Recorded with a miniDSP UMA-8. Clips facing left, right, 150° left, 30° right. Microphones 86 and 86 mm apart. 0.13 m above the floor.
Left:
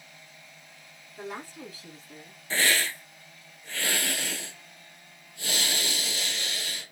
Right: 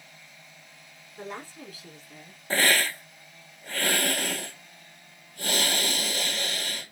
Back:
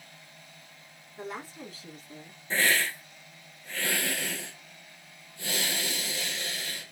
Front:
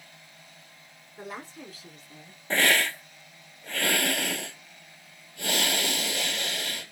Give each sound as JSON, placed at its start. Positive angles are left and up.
{"t": 1.2, "sound": "a woman speaking", "azimuth_deg": 5, "distance_m": 1.0}
{"t": 2.5, "sound": "a hiss", "azimuth_deg": -50, "distance_m": 0.6}